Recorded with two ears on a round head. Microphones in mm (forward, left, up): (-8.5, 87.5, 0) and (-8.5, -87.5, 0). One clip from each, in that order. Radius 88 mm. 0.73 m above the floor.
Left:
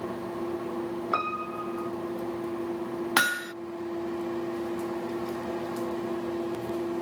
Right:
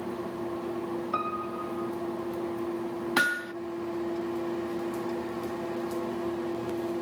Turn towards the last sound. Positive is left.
turn(degrees=35)  # may be behind; listen again after turning